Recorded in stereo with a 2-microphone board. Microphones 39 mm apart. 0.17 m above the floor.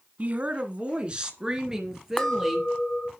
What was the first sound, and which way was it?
A woman speaking, 40° right (ahead or behind).